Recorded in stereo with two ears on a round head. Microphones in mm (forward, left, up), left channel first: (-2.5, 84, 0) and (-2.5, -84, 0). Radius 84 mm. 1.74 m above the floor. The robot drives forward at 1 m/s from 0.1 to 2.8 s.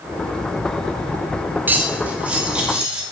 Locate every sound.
1.7 s cutlery clinking: 10° right (ahead or behind), 1.1 m; by 3.0 s 5° right (ahead or behind), 2 m